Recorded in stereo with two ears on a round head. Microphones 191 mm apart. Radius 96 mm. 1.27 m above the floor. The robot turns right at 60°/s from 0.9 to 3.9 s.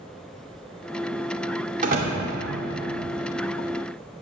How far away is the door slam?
About 2 m.